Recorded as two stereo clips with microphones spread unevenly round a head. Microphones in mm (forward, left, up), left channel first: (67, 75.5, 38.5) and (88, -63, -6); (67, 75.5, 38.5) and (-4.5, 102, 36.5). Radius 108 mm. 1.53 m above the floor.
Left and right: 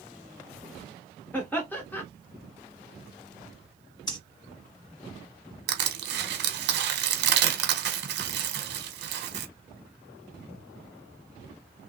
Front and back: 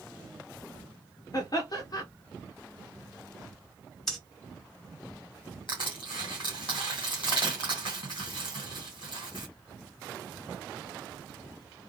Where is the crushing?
90° right, 1.0 m.